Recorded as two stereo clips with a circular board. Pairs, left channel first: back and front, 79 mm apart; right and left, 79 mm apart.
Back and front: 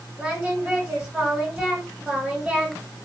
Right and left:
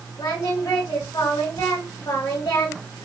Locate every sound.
0.2 s singing: 75° right, 2 m